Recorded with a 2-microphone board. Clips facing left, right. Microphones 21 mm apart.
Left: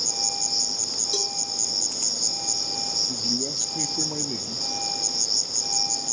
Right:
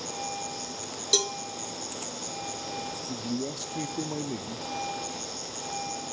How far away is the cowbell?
About 0.6 m.